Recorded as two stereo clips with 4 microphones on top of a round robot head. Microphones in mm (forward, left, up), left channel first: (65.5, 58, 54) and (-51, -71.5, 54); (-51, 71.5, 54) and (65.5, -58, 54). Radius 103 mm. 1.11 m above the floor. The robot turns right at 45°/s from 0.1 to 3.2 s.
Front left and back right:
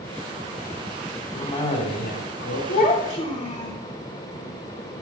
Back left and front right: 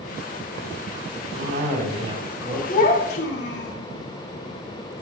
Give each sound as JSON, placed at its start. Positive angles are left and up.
{"t": 1.3, "sound": "a cough", "azimuth_deg": -20, "distance_m": 4.0}
{"t": 2.7, "sound": "a child speaking", "azimuth_deg": 85, "distance_m": 3.0}